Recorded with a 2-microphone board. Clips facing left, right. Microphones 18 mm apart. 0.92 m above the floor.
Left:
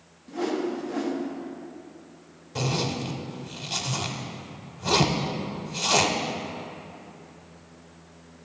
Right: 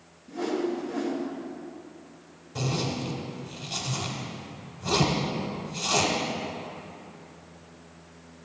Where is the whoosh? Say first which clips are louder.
Left 1 dB; 25° left (ahead or behind), 1.1 m.